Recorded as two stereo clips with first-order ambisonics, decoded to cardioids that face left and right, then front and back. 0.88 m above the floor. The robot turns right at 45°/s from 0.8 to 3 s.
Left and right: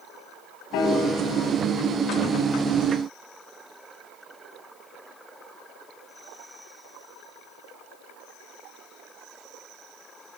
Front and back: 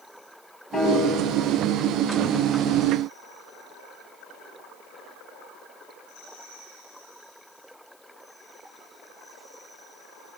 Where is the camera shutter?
No camera shutter in this recording.